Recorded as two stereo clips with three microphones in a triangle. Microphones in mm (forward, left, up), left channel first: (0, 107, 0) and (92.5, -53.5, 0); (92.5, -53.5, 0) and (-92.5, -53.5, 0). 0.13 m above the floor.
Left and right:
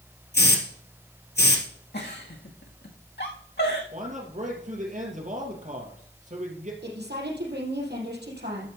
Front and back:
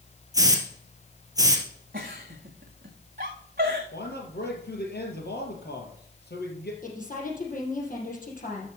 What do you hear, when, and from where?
0.3 s a hiss: 110° left, 1.8 m
1.9 s a giggle: 145° left, 1.7 m
3.9 s a man speaking: 15° right, 3 m
6.8 s a woman speaking: 40° right, 4 m